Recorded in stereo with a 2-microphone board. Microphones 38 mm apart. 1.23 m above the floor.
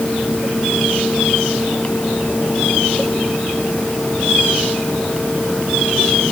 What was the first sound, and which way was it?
Only background noise.